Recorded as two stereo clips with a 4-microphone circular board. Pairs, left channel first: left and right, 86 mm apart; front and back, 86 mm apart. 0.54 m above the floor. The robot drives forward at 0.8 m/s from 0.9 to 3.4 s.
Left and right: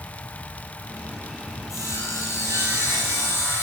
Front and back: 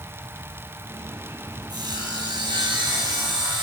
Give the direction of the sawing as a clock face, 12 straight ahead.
7 o'clock.